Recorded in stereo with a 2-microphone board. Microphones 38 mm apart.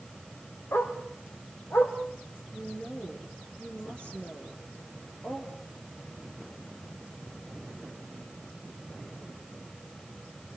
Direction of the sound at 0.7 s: 80° left.